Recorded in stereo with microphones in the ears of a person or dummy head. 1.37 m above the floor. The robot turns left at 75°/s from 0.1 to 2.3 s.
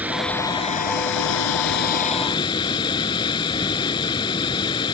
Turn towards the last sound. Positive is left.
turn(degrees=25)